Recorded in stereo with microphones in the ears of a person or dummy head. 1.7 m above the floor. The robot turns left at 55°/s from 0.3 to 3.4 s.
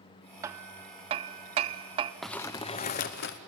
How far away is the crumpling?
About 0.8 m.